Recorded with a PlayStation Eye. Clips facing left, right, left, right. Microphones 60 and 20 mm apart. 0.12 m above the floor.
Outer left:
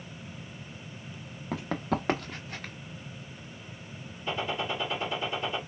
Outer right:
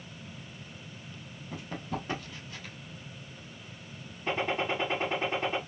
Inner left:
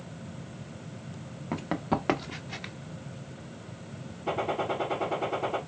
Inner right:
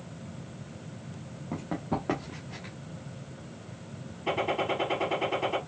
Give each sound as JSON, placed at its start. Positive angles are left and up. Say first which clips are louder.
{"t": 1.5, "sound": "running footsteps", "louder": "outer left 7 dB, inner left 3 dB", "side_deg": 85, "distance_m": 1.0}
{"t": 4.3, "sound": "a gunshot", "louder": "outer right 2 dB, inner right 1 dB", "side_deg": -45, "distance_m": 2.5}